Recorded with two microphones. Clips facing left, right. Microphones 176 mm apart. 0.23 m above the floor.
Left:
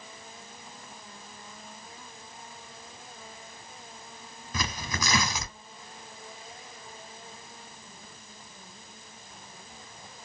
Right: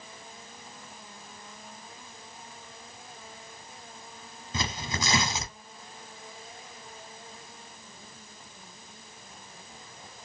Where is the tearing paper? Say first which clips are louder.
Right 1 dB; 25° right (ahead or behind), 0.7 m.